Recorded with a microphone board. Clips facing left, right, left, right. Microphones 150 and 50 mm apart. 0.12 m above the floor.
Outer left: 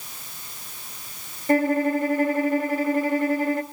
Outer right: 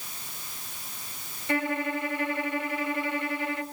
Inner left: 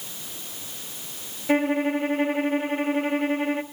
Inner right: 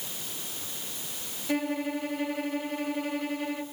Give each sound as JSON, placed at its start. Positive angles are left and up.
{"t": 1.5, "sound": "a violin", "side_deg": 40, "distance_m": 1.6}